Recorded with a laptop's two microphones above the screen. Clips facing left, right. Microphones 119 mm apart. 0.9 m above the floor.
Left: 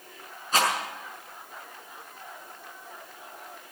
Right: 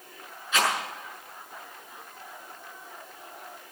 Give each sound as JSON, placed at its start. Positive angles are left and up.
{"t": 0.5, "sound": "a rattle", "side_deg": 40, "distance_m": 7.0}